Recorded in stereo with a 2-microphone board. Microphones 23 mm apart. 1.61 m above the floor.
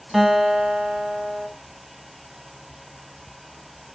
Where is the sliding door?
I don't hear a sliding door.